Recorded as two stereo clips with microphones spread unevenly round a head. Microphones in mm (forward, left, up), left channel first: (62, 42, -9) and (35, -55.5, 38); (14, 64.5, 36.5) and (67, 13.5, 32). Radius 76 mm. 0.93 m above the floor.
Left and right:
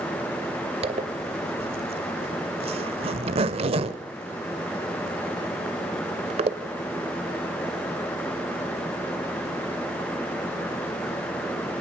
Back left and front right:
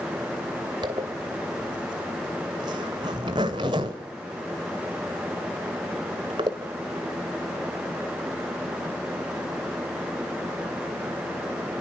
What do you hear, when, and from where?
0.8 s a zipper: 95° right, 1.7 m